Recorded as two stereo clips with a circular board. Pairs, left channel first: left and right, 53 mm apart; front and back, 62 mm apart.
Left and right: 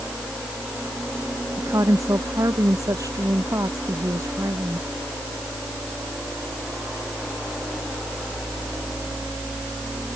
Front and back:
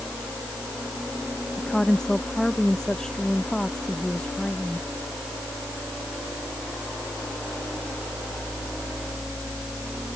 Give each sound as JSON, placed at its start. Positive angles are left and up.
{"t": 1.6, "sound": "a woman speaking", "azimuth_deg": -80}